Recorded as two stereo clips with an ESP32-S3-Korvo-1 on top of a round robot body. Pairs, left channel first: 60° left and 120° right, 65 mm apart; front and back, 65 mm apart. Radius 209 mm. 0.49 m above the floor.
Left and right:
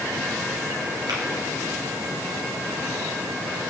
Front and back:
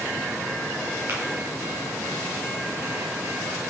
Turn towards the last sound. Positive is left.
turn(degrees=-130)